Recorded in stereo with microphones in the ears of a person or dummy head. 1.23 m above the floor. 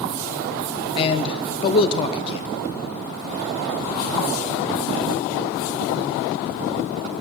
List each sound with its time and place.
1.0 s a man speaking: 35° left (ahead or behind), 0.8 m